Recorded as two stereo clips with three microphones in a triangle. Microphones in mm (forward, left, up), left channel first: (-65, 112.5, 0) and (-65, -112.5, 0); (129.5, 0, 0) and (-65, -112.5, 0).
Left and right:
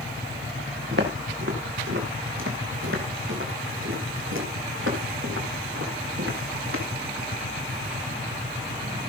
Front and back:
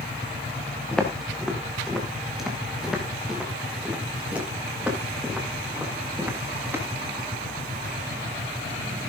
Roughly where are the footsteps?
Ahead right.